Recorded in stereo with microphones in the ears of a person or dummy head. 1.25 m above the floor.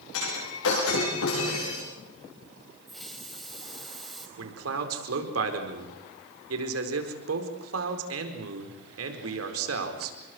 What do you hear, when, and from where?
0.1 s breaking glass: 75° left (ahead or behind), 10 m
2.9 s a hiss: 5° left (ahead or behind), 3.5 m
4.4 s a man speaking: 85° right, 4.5 m